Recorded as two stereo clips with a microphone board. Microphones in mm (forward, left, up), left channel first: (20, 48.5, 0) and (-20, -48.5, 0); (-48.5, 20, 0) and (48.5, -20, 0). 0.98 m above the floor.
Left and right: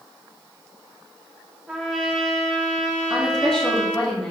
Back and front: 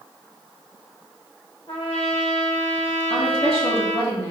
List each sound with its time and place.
1.7 s a trumpet: 165° left, 1.3 m
3.1 s a woman speaking: 150° left, 2.5 m